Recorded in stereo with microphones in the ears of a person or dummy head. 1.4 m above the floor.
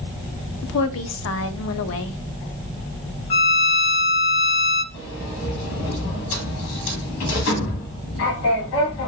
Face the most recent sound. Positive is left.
turn(degrees=75)  # may be behind; listen again after turning